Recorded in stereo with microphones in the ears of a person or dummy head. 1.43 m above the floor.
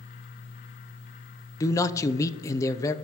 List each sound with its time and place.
1.6 s a man speaking: 20° left (ahead or behind), 0.6 m